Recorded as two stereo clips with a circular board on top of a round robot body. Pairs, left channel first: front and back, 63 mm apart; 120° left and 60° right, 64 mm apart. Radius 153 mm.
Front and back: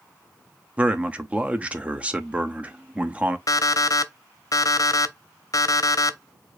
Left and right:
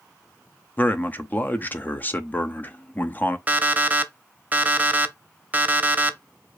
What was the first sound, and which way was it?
A man speaking, 135° left.